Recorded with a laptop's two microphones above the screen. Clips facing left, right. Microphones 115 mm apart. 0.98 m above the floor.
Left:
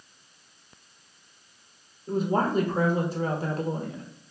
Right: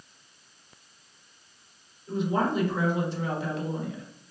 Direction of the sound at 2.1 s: 40° left (ahead or behind).